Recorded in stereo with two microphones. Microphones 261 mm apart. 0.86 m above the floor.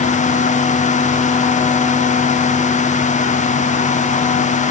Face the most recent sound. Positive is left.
No sound to turn to.